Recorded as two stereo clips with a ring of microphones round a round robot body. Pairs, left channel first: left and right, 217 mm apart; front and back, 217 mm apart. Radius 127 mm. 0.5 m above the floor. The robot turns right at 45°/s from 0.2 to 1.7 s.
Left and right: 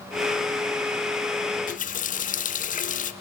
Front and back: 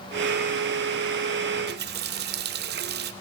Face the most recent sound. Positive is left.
turn(degrees=140)